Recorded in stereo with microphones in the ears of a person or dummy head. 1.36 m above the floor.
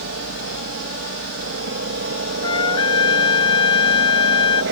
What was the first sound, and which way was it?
A helicopter, 60° right (ahead or behind).